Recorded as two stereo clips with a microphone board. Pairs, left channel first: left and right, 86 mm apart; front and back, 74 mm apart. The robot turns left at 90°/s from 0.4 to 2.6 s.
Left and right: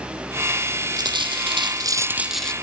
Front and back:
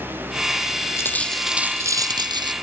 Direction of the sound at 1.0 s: 50° right.